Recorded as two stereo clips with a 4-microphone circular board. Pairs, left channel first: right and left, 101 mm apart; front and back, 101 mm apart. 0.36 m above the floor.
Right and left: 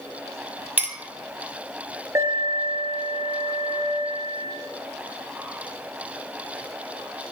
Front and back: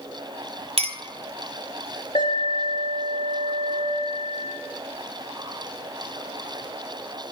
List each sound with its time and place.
0.8 s a clink: 160° left, 1.2 m
2.1 s an alarm: 30° left, 4 m